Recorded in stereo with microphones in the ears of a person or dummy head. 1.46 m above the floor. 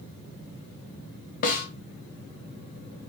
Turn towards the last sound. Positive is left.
turn(degrees=45)  # may be behind; listen again after turning